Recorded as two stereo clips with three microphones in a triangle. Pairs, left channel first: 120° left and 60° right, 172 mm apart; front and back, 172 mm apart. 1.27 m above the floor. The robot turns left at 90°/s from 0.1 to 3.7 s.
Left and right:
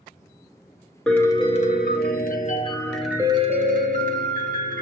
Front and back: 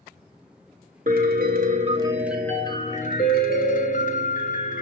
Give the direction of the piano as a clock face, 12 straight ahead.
5 o'clock.